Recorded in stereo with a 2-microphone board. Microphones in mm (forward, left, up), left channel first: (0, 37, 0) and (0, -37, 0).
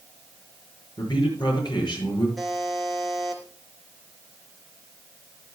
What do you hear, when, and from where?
1.0 s a man speaking: 75° left (ahead or behind), 7 m
2.4 s a buzzer: centre (ahead or behind), 3.5 m